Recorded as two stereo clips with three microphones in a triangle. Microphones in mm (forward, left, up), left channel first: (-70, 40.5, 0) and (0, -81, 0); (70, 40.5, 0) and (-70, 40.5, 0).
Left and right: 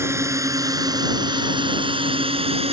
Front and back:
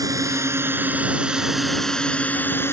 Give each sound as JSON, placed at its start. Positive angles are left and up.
{"t": 0.0, "sound": "a drone", "azimuth_deg": -125}